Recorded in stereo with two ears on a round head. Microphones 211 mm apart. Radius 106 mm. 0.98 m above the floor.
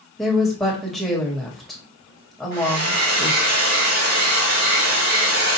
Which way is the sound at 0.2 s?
Centre (ahead or behind).